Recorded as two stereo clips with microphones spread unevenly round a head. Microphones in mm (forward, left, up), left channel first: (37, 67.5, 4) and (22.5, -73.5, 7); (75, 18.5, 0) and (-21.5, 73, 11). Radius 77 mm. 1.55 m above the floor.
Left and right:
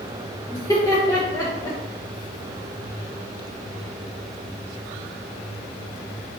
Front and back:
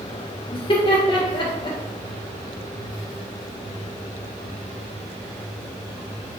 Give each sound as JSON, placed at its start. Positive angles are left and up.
{"t": 0.5, "sound": "laughter", "azimuth_deg": 15, "distance_m": 0.6}